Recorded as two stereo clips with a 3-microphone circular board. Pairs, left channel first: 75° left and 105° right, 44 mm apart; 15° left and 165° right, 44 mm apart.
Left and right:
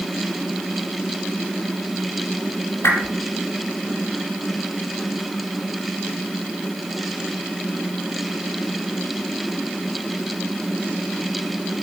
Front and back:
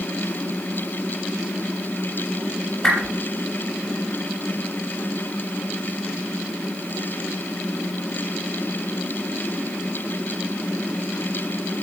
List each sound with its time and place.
2.8 s a whoosh: 90° left, 4.5 m